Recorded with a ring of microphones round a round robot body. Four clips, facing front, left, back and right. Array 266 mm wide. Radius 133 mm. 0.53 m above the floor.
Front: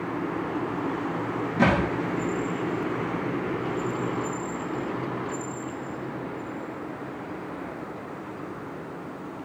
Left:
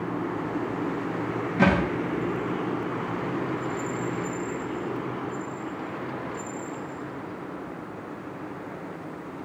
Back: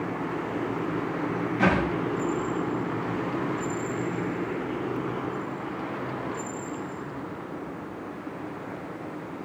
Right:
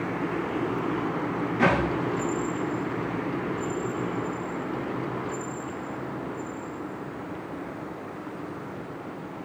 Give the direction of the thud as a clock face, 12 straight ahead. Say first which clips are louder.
Left 1 dB, front 2 dB; 10 o'clock.